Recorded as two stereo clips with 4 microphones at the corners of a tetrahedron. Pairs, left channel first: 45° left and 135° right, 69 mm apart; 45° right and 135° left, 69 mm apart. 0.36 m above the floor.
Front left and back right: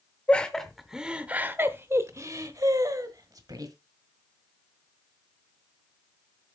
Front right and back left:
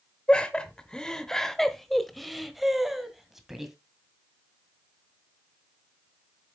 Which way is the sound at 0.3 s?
5° left.